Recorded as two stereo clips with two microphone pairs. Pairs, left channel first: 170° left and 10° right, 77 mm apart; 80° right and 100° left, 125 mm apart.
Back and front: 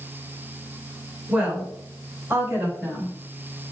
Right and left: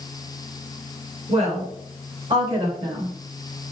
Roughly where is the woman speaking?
Ahead left.